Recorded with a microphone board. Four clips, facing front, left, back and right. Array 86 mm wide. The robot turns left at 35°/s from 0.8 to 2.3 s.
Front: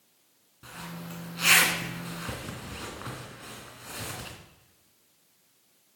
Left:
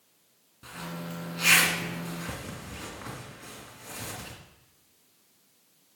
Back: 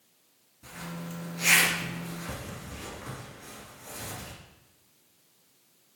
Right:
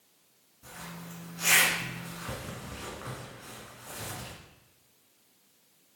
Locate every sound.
0.6 s a zipper: 50° left, 1.9 m; by 4.3 s straight ahead, 1.9 m